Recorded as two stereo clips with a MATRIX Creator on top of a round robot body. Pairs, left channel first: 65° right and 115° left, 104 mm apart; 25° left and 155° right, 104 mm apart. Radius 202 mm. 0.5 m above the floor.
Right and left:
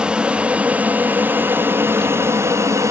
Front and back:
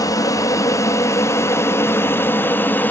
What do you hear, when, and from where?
0.0 s an aircraft: 35° left; by 2.9 s 80° left